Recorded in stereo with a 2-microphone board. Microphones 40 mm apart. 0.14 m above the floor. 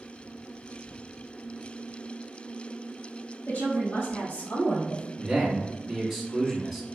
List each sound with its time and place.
3.5 s a woman speaking: 60° left (ahead or behind), 2.0 m; by 5.1 s 65° left (ahead or behind), 2.5 m
5.2 s a man speaking: centre (ahead or behind), 1.1 m